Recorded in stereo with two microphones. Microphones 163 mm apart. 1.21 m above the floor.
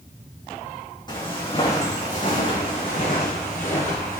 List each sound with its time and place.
1.1 s footsteps: 30° left (ahead or behind), 3.5 m; by 4.2 s 75° left (ahead or behind), 5 m